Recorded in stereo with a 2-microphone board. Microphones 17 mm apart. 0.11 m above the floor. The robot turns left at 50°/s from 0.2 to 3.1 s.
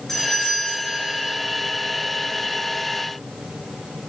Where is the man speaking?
No man speaking in this recording.